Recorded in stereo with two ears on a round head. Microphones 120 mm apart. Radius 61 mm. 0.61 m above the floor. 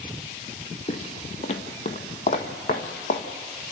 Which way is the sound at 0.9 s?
40° left (ahead or behind).